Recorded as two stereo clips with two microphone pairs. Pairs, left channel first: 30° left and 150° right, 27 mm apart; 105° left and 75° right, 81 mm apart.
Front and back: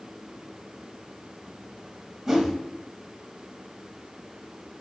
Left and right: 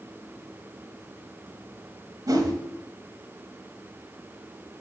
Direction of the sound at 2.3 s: 80° right.